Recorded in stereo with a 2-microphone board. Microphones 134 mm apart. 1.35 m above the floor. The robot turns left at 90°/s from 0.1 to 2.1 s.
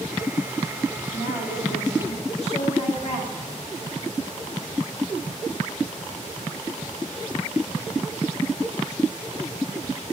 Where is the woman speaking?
140° left, 2.0 m; by 3.5 s 50° left, 2.0 m.